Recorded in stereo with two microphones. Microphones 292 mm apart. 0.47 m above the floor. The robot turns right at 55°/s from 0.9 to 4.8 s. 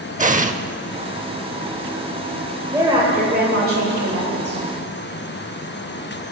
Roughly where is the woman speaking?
Behind.